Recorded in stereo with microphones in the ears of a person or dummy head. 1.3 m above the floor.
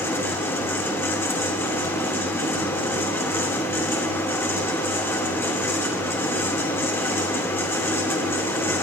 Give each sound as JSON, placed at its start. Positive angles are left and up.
{"t": 0.0, "sound": "a fan", "side_deg": 10, "distance_m": 1.3}